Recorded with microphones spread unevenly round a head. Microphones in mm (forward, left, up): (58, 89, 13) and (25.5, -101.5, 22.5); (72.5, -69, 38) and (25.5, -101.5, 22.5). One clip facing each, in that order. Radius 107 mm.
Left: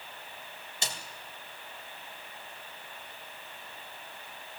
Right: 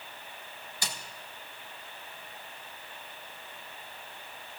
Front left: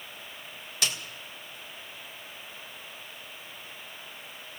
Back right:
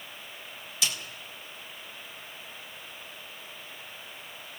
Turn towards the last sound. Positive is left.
turn(degrees=15)